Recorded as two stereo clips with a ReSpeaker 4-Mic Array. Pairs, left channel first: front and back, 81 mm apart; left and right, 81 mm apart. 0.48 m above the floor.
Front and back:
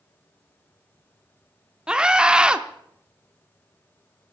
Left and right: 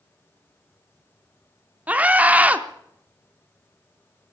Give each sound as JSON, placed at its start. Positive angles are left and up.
{"t": 1.9, "sound": "a scream", "azimuth_deg": -120, "distance_m": 0.7}